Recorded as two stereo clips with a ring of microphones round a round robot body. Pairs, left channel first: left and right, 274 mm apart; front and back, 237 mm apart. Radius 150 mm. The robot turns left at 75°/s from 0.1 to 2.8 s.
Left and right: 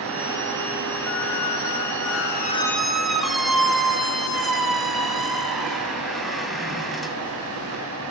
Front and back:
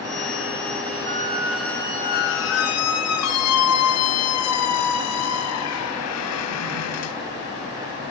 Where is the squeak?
130° left, 2.5 m; by 7.2 s straight ahead, 2.5 m.